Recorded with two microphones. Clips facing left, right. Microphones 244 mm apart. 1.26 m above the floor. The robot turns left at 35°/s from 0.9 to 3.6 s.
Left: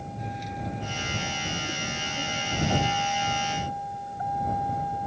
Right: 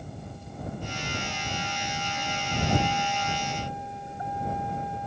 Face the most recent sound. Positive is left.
turn(degrees=-20)